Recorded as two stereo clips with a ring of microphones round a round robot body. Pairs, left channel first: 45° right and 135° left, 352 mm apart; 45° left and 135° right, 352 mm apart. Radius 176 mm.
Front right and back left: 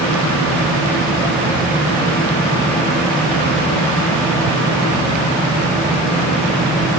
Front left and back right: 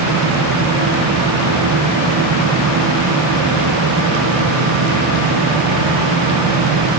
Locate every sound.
Only background noise.